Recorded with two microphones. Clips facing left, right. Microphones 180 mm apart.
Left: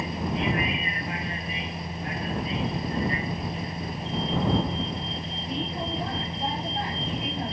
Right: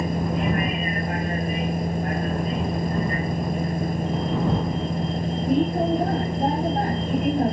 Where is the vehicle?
50° right (ahead or behind).